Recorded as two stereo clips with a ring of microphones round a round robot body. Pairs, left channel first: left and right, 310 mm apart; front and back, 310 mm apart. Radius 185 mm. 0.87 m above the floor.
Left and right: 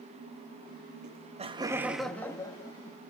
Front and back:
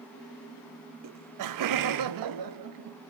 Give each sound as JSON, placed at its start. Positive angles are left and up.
{"t": 1.0, "sound": "laughter", "azimuth_deg": -145, "distance_m": 0.9}